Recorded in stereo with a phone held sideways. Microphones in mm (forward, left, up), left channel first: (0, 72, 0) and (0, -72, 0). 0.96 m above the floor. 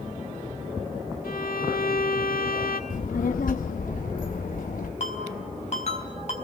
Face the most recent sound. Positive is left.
turn(degrees=50)  # may be behind; listen again after turning